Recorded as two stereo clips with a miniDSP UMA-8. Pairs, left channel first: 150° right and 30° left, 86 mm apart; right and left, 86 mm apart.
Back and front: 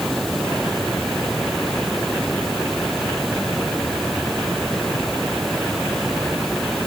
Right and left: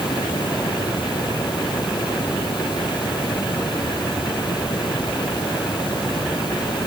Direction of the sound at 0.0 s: 60° right.